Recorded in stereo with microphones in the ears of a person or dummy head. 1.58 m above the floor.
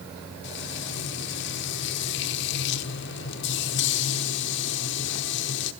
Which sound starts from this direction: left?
Frying, at 0.4 s.